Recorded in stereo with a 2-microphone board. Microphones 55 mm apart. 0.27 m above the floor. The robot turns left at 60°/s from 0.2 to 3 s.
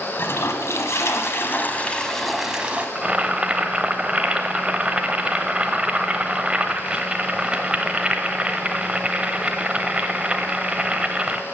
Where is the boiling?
20° right (ahead or behind), 0.8 m.